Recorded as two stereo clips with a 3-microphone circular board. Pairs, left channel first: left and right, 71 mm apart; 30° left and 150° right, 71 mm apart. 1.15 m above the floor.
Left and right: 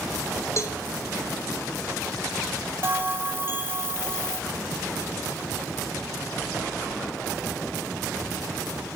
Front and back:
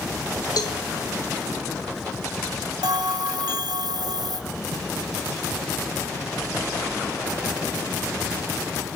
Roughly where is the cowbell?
Ahead left.